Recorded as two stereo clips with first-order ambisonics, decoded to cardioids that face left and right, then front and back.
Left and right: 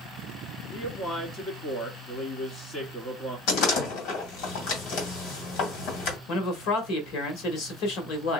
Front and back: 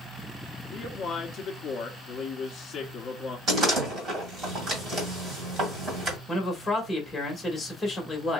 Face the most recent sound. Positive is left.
turn(degrees=80)